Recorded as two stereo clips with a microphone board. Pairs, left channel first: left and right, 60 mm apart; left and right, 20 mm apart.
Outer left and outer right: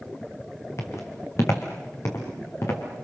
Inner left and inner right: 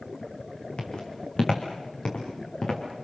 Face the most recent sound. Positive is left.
turn(degrees=55)  # may be behind; listen again after turning